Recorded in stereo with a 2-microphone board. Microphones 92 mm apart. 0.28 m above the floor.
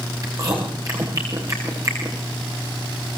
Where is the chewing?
40° right (ahead or behind), 8 m.